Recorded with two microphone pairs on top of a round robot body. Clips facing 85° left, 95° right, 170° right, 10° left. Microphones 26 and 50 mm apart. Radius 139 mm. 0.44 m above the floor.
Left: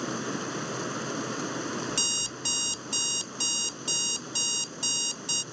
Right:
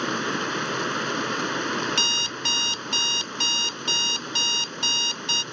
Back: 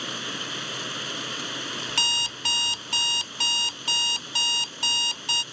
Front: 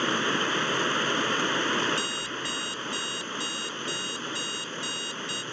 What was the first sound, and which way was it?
Running water, 50° right.